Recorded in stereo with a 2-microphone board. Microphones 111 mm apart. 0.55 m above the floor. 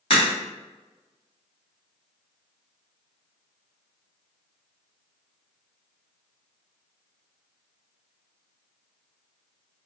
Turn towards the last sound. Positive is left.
turn(degrees=55)  # may be behind; listen again after turning